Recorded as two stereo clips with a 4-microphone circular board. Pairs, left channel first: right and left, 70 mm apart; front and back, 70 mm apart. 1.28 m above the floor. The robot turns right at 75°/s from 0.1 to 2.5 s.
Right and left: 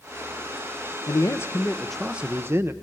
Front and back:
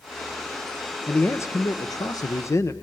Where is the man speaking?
65° right, 0.9 m; by 2.7 s 40° left, 0.9 m.